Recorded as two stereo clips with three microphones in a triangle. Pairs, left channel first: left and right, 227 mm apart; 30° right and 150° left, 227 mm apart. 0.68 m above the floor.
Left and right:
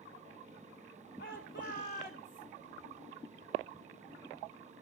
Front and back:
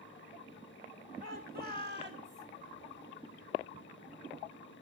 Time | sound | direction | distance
1.2 | a shout | 105° left | 1.9 m